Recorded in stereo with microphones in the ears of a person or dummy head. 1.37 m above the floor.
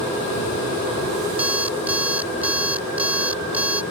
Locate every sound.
1.4 s an alarm clock: 5° right (ahead or behind)